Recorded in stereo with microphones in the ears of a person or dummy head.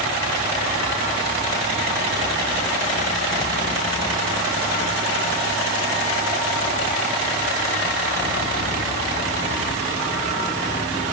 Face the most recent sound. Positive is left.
No sound to turn to.